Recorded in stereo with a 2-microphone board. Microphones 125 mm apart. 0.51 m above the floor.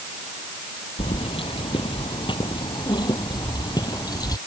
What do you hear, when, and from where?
1.0 s keys jangling: 45° left (ahead or behind); by 4.4 s 30° left (ahead or behind)